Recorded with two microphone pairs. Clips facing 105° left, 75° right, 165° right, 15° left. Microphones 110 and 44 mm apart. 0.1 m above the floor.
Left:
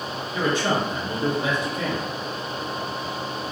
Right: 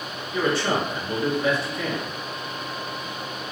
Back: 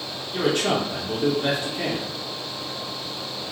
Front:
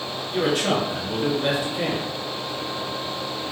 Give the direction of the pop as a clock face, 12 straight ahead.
I don't hear a pop.